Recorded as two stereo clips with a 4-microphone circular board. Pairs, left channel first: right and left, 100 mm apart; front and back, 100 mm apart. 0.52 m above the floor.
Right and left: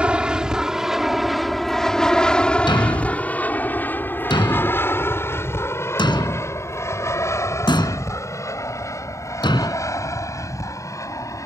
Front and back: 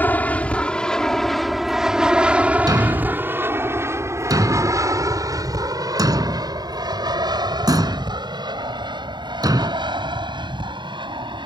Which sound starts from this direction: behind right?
A thud, at 2.7 s.